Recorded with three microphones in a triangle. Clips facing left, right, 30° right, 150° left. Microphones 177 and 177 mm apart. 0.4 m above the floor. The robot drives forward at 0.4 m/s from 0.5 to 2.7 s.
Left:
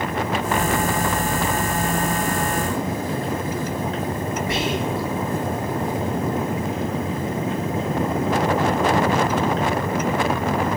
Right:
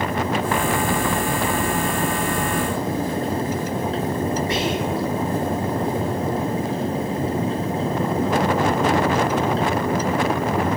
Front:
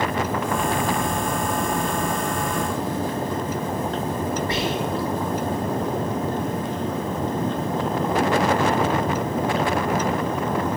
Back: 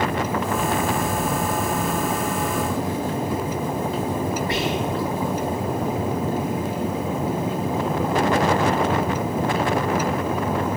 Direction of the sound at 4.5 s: 90° left.